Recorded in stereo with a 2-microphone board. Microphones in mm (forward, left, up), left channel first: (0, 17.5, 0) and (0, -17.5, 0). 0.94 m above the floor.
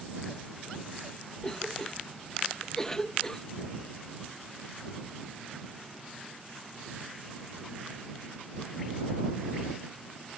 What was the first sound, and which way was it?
A cough, 15° left (ahead or behind).